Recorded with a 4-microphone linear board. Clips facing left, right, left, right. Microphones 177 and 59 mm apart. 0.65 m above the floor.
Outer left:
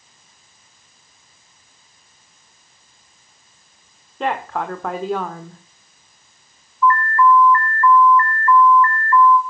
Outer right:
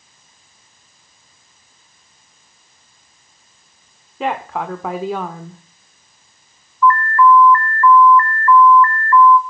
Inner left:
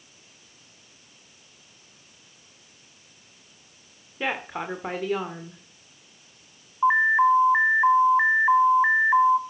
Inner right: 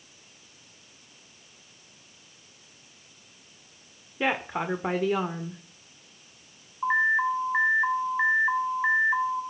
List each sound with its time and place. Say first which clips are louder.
4.2 s a woman speaking: outer right 1 dB, inner right 2 dB; 5° right (ahead or behind), 1.4 m
6.8 s an alarm: outer right 3 dB, inner left 5 dB; 25° left (ahead or behind), 1.2 m